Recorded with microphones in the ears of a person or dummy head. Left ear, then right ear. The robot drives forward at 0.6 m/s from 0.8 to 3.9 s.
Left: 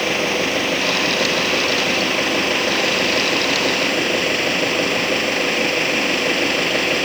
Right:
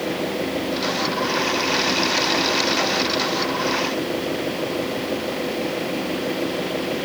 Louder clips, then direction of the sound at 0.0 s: Left 6 dB; 50° left (ahead or behind).